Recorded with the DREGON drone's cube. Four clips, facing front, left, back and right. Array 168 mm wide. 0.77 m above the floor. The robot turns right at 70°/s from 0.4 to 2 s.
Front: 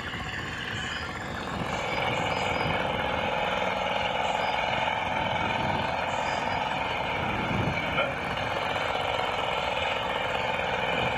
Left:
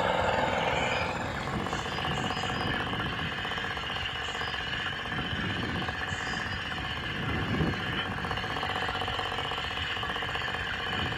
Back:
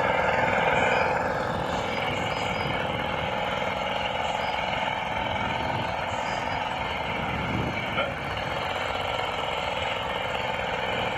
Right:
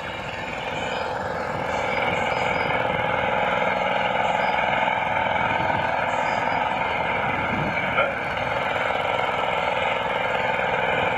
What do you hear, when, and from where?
0.0 s an engine running: 160° left; by 11.2 s 90° right